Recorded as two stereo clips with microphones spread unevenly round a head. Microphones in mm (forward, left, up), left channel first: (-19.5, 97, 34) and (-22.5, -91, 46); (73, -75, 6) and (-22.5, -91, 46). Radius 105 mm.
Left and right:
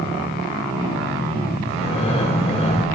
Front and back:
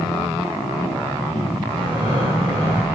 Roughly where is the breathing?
Behind left.